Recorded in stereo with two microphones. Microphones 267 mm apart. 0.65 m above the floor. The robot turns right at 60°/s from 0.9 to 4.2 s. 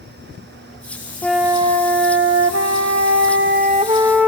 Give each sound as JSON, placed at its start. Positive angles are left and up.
{"t": 1.2, "sound": "a flute", "azimuth_deg": 175, "distance_m": 0.9}